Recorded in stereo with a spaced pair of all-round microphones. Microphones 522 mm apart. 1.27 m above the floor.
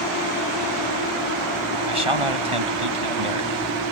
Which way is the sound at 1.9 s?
75° right (ahead or behind).